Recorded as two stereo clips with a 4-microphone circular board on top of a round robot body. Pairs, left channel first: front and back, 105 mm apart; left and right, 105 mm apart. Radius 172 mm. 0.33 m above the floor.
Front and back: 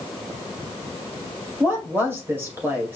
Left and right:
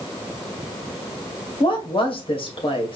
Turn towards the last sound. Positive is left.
turn(degrees=110)